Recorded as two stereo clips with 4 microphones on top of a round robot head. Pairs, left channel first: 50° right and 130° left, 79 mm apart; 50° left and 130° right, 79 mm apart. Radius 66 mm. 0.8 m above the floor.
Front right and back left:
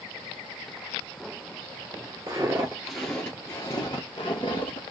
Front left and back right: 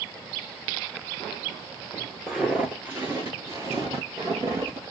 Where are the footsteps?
145° left, 0.8 m; by 4.8 s 70° right, 1.2 m.